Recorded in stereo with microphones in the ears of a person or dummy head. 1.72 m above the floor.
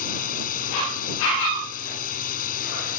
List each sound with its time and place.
0.0 s a drone: 55° left (ahead or behind)